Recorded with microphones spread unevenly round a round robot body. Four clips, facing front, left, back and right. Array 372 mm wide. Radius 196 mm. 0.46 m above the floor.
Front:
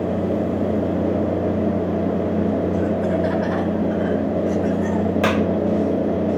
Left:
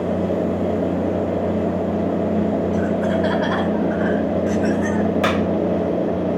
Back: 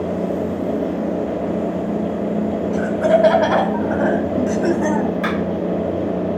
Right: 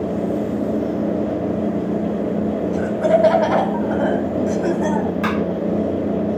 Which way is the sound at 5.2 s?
10° left.